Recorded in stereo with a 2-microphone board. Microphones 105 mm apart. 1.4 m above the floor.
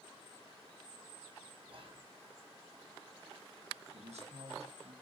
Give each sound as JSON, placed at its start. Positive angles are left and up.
{"t": 1.7, "sound": "whispering", "side_deg": -55, "distance_m": 1.2}
{"t": 3.9, "sound": "a man speaking", "side_deg": -80, "distance_m": 1.9}